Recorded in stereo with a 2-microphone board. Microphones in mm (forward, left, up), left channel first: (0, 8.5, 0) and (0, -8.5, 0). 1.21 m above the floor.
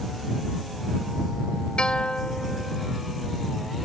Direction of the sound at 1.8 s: 85° left.